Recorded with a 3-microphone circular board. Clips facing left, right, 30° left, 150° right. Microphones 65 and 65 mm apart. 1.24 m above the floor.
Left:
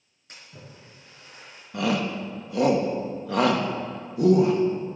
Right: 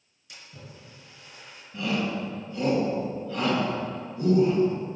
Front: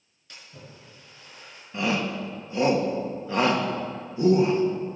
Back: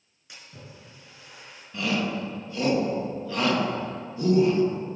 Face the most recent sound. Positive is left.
turn(degrees=95)